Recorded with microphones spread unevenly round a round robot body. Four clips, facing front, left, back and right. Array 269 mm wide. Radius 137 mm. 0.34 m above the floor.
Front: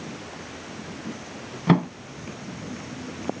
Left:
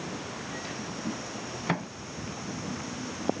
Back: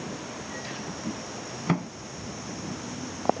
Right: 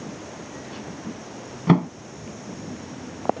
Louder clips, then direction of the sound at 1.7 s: Right 13 dB, front 8 dB; 60° right.